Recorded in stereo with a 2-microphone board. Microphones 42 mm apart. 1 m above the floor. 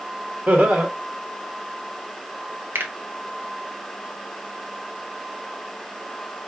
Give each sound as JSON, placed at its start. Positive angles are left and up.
{"t": 0.5, "sound": "laughter", "side_deg": -40, "distance_m": 1.1}
{"t": 2.8, "sound": "a finger snap", "side_deg": -70, "distance_m": 0.9}